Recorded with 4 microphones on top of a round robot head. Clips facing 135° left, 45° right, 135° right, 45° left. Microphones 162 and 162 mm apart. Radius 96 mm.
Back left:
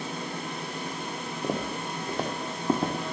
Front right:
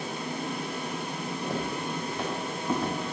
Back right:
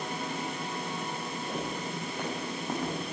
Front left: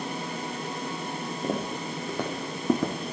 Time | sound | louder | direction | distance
1.4 | footsteps | back left 2 dB, front left 6 dB | 90° left | 3 m